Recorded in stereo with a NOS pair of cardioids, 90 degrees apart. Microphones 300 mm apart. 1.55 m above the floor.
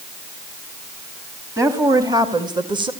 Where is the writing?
I don't hear writing.